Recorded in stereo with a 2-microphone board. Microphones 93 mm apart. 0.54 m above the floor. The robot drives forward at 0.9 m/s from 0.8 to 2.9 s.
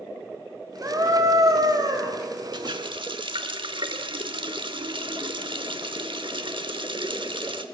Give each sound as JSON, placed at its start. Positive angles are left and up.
{"t": 0.8, "sound": "a scream", "side_deg": -35, "distance_m": 3.5}
{"t": 2.5, "sound": "a running tap", "side_deg": -55, "distance_m": 1.2}